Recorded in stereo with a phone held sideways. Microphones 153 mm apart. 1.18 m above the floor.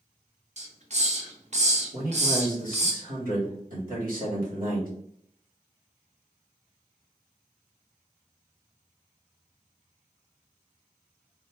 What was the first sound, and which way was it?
A hiss, 50° right (ahead or behind).